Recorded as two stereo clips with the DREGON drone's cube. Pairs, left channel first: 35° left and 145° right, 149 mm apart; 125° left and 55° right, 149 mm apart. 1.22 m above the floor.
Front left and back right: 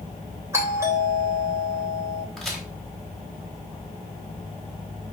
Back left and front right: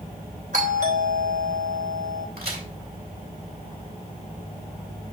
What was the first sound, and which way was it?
A doorbell, 75° right.